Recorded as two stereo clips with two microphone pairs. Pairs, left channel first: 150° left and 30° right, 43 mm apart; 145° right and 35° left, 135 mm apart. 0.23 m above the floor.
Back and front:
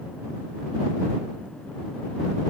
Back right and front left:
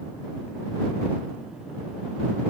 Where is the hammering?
I don't hear hammering.